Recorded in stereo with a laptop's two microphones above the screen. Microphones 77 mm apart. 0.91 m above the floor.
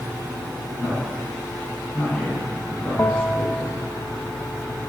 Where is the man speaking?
20° left (ahead or behind), 6.5 m.